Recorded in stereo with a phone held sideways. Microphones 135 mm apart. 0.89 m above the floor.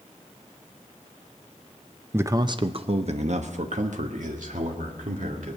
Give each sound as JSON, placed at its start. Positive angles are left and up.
{"t": 2.1, "sound": "a man speaking", "side_deg": -15, "distance_m": 0.6}